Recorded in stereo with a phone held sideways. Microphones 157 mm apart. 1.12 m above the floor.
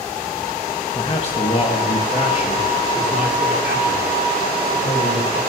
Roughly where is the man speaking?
Left.